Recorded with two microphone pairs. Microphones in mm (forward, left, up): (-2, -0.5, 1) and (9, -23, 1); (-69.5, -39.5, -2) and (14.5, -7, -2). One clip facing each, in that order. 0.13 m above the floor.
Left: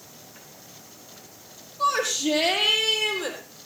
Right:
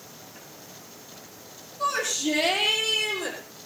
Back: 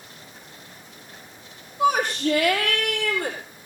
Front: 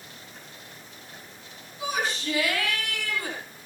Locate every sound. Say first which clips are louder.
1.8 s a shout: left 3 dB, back 9 dB; 165° left, 5 m; by 3.4 s 175° left, 5.5 m